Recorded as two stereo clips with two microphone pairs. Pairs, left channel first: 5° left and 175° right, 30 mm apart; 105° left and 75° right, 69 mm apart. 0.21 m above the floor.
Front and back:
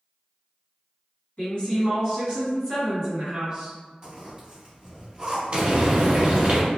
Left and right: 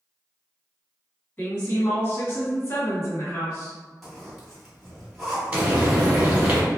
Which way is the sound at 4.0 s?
160° right.